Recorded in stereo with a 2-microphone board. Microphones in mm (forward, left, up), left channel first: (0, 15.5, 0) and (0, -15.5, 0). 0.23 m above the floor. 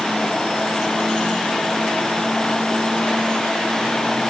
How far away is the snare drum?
I don't hear a snare drum.